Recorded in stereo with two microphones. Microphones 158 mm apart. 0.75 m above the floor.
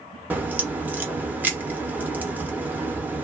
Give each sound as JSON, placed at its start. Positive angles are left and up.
{"t": 0.3, "sound": "a crack", "side_deg": -10, "distance_m": 0.6}